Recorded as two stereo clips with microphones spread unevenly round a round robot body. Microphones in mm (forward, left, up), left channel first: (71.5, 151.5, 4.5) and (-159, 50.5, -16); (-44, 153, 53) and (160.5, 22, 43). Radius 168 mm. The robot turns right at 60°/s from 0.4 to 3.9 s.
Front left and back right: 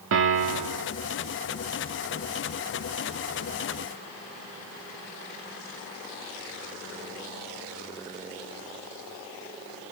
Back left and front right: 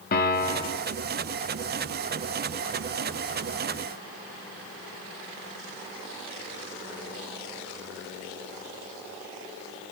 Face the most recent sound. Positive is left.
turn(degrees=45)